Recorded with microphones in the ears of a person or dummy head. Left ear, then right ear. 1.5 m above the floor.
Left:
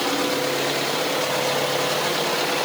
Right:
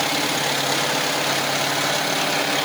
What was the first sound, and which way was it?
Only background noise.